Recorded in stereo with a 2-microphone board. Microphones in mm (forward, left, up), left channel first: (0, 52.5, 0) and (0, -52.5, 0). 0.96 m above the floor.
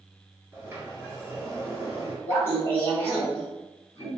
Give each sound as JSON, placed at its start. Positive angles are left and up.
{"t": 0.5, "sound": "a sliding door", "side_deg": -20, "distance_m": 2.0}
{"t": 2.3, "sound": "laughter", "side_deg": 20, "distance_m": 2.0}